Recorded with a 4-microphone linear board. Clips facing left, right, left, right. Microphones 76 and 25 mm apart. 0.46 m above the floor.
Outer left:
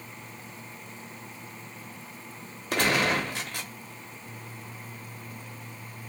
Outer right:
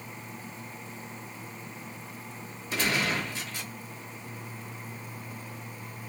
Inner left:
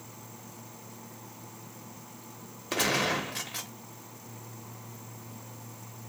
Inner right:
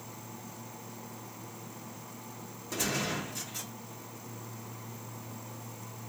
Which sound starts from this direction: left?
A gunshot, at 2.7 s.